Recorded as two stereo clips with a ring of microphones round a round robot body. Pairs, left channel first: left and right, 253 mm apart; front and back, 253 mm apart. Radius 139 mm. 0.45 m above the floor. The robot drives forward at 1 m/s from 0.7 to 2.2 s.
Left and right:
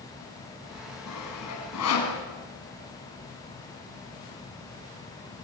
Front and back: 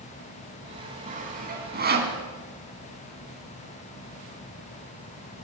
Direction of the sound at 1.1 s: 120° left.